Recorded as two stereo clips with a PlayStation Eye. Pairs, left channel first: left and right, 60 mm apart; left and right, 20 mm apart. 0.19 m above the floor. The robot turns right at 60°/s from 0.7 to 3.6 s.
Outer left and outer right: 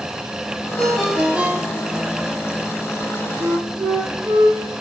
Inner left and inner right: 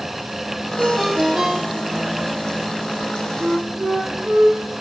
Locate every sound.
0.8 s a ringtone: 165° left, 3.5 m; by 2.1 s 115° right, 3.5 m
3.4 s a flute: 60° right (ahead or behind), 5 m; by 4.6 s 50° right (ahead or behind), 5 m